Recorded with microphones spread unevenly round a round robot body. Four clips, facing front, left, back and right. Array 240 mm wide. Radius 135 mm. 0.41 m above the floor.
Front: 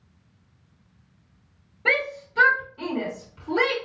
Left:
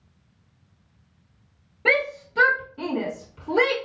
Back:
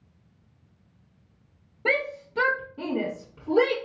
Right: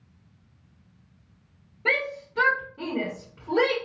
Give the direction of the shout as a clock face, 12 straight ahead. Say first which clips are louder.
Left 5 dB, front 1 dB; 7 o'clock.